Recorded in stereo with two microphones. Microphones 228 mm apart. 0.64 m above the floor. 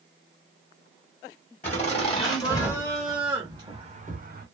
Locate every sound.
1.6 s laughter: 30° left (ahead or behind), 1.3 m; by 4.5 s 45° right (ahead or behind), 0.9 m